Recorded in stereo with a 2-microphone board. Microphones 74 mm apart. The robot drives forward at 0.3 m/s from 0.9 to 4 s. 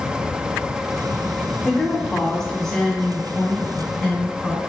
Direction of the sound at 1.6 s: 10° left (ahead or behind).